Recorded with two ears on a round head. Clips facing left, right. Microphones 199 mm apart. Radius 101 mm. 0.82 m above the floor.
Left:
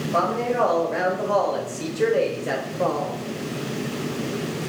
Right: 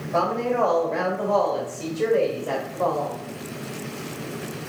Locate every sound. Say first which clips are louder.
0.1 s a woman speaking: right 1 dB; 5° right (ahead or behind), 3 m; by 3.2 s 40° left (ahead or behind), 3 m